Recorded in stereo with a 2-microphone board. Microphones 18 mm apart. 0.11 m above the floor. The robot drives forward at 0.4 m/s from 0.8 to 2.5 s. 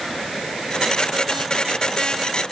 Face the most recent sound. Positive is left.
No sound to turn to.